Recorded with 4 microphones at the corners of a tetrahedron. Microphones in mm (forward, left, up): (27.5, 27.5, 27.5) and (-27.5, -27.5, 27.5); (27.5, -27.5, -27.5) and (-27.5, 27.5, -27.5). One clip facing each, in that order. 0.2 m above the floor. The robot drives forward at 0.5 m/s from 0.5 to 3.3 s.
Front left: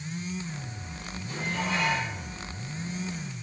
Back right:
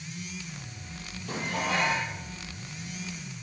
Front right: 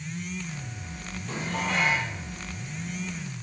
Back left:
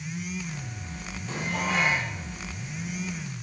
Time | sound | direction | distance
1.3 | dishes clattering | 140° right | 3 m